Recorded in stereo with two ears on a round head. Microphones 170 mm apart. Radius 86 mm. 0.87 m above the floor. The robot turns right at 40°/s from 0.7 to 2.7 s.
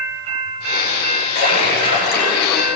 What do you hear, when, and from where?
1.4 s a splash: 135° left, 9.5 m; by 2.6 s 175° right, 9.5 m